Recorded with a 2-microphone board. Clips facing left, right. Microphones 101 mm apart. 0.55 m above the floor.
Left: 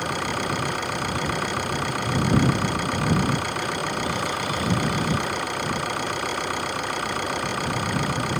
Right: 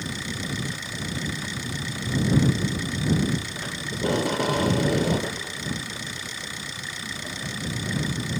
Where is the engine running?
60° left (ahead or behind).